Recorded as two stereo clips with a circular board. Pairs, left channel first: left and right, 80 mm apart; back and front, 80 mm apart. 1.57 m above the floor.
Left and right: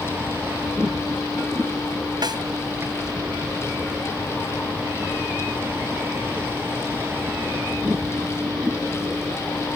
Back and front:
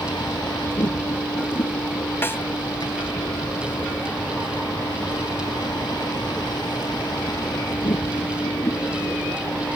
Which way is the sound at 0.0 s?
150° right.